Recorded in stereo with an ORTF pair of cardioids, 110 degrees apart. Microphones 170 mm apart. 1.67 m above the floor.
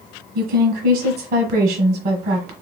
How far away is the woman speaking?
About 1.3 m.